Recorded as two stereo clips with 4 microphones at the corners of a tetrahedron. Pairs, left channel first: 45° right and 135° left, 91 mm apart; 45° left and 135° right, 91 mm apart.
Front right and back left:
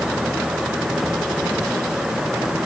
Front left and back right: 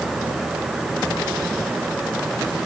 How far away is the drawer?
No drawer in this recording.